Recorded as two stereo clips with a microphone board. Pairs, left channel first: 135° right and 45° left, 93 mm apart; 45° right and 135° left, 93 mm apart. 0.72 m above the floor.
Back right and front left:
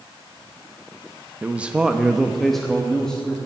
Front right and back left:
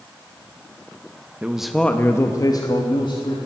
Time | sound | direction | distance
1.4 | a man speaking | 95° left | 0.8 m